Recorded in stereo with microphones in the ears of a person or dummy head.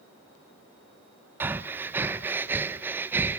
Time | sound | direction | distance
1.4 | breathing | 15° right (ahead or behind) | 0.6 m